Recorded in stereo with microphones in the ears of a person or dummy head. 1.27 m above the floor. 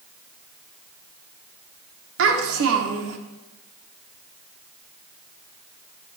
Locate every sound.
2.2 s a child speaking: 70° right (ahead or behind), 1.5 m